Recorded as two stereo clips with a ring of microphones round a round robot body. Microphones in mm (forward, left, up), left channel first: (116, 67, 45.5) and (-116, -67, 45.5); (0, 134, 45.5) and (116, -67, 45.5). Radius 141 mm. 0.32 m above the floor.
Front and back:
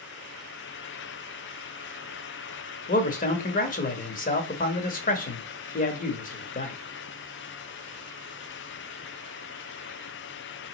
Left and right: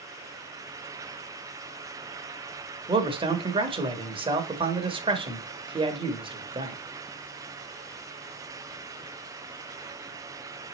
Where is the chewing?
I don't hear chewing.